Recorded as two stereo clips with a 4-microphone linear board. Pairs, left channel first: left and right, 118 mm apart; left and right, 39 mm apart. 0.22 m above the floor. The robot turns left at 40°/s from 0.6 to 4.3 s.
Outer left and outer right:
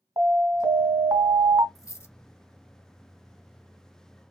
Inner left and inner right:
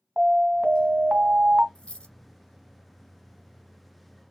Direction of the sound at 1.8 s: 30° left (ahead or behind).